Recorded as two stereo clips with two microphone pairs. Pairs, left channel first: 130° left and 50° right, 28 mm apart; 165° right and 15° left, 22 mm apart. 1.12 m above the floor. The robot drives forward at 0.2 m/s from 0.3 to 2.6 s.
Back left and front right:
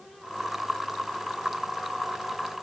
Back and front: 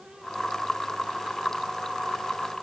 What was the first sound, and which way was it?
Only background noise.